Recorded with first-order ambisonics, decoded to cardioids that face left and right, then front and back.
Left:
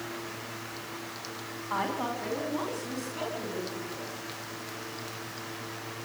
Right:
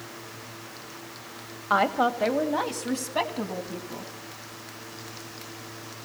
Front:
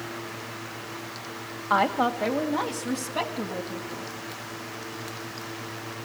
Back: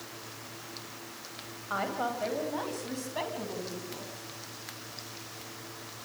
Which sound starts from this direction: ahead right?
A woman speaking, at 1.7 s.